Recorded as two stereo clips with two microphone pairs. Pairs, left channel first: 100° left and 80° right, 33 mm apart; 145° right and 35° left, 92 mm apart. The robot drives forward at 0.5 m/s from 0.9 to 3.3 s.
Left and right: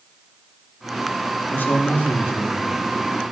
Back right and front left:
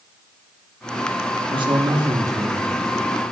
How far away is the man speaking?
About 1.2 m.